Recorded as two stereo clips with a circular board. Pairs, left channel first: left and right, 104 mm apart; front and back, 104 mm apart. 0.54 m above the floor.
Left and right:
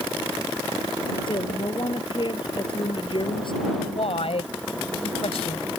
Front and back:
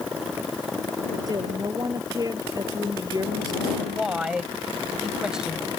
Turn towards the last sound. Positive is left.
turn(degrees=100)